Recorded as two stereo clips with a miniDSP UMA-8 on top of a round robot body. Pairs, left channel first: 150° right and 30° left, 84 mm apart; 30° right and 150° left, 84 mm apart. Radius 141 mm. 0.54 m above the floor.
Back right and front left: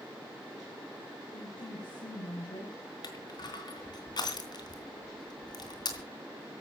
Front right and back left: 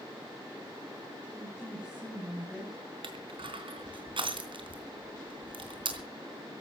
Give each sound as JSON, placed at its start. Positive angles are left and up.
{"t": 1.3, "sound": "a woman speaking", "azimuth_deg": -130, "distance_m": 5.0}
{"t": 3.0, "sound": "crushing", "azimuth_deg": 170, "distance_m": 3.0}